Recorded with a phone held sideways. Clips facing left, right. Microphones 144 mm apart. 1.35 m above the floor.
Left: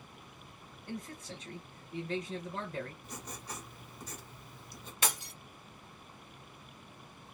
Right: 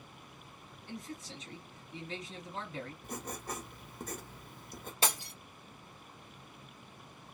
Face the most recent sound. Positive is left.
turn(degrees=-30)  # may be behind; listen again after turning